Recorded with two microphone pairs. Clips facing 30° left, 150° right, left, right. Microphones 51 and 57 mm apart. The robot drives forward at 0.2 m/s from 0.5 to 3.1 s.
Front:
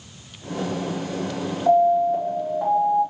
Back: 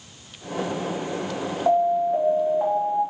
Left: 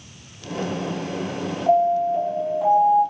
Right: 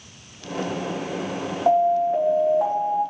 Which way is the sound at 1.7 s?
105° right.